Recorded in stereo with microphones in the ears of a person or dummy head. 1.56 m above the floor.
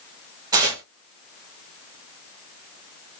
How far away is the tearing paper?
About 2 m.